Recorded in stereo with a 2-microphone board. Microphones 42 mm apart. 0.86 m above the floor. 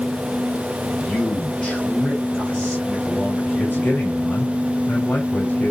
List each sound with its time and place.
0.9 s a man speaking: 30° left (ahead or behind), 5 m
3.6 s a man speaking: 45° left (ahead or behind), 3 m